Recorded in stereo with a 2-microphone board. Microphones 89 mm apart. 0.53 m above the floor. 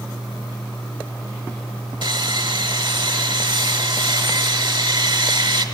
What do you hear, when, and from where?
2.0 s sawing: 65° right (ahead or behind), 1.2 m